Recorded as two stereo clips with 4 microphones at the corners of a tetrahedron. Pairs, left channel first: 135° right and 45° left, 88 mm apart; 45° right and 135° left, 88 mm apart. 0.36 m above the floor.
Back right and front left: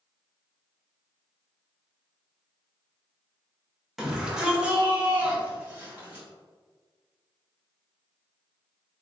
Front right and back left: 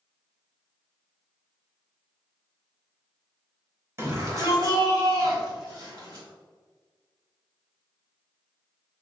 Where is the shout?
130° left, 1.3 m; by 6.2 s 115° left, 2.5 m.